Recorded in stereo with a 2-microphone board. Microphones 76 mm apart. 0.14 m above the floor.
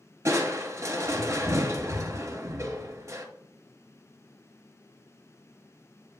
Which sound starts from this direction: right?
Crushing, at 0.2 s.